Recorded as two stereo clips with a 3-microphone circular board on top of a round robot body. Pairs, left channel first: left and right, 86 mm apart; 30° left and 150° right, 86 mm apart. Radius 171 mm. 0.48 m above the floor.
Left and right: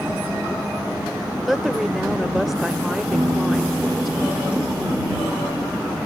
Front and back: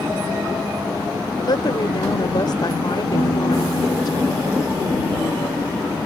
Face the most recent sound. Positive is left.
turn(degrees=-20)